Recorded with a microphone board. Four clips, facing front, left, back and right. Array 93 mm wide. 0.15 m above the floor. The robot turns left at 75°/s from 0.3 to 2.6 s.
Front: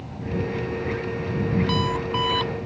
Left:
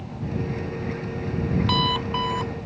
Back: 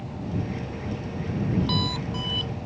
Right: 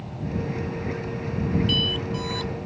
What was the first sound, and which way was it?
An alarm clock, 85° left.